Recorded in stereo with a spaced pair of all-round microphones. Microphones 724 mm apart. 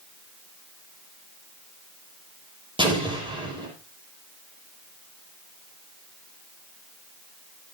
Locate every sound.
2.8 s an explosion: 5° right (ahead or behind), 7 m